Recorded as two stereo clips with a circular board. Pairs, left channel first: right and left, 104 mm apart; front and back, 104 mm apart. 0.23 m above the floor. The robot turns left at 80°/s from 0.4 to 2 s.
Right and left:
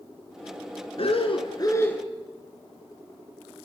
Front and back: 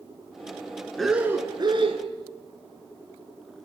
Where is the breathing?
85° right, 2.5 m; by 2.0 s 165° right, 2.5 m.